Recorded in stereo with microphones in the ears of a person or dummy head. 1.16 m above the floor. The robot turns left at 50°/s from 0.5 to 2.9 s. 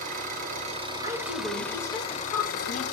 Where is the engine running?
135° right, 1.2 m; by 2.9 s 105° left, 1.2 m.